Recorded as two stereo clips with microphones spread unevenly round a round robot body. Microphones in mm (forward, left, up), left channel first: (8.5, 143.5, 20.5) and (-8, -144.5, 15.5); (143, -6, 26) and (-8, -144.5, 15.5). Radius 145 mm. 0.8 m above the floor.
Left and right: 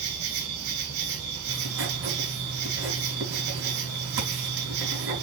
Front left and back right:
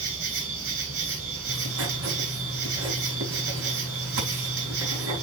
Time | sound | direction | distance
0.0 | an insect | 135° right | 3.5 m
1.5 | writing | 145° right | 3.5 m